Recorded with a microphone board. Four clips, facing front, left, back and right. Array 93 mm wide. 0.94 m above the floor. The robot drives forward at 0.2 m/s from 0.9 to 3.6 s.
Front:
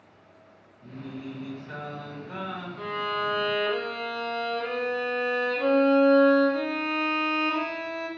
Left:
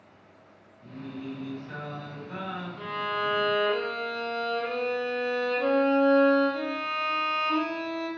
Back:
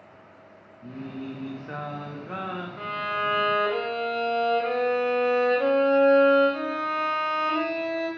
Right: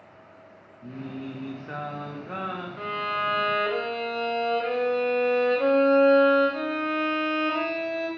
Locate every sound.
0.8 s singing: 125° right, 1.1 m; by 2.7 s 135° right, 1.3 m
2.8 s a violin: 125° right, 1.7 m; by 8.1 s 130° right, 1.8 m